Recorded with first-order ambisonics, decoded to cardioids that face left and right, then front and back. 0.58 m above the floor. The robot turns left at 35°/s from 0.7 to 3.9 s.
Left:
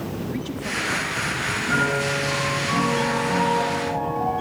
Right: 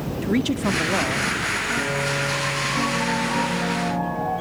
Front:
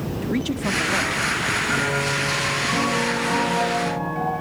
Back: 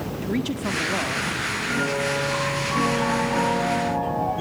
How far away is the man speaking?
About 1.0 m.